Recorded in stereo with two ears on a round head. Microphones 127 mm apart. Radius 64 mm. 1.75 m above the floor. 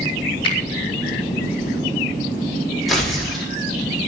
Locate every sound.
0.4 s a finger snap: 35° left (ahead or behind), 4 m
2.9 s tearing paper: centre (ahead or behind), 4.5 m